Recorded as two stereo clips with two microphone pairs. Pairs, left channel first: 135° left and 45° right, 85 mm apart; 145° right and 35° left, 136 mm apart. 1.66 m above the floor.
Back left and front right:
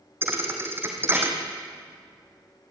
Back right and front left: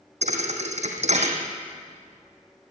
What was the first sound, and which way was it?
A thud, 15° left.